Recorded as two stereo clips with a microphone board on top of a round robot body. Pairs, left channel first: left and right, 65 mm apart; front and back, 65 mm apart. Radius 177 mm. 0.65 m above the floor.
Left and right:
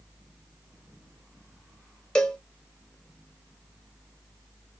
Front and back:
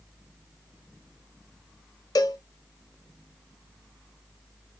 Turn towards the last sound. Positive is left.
turn(degrees=10)